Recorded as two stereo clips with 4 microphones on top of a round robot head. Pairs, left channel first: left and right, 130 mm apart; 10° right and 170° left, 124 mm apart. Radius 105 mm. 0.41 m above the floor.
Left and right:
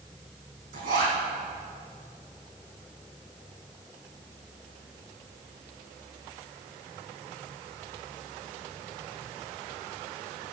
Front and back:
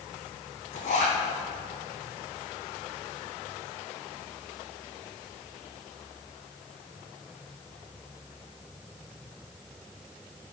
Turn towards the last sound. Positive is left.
turn(degrees=-50)